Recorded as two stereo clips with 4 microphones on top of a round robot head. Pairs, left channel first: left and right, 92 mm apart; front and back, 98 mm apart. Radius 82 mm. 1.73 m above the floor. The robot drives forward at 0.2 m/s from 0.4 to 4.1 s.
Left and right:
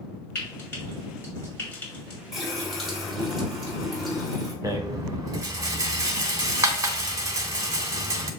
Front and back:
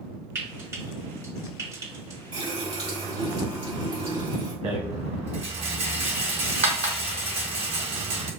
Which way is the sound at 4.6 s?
140° right.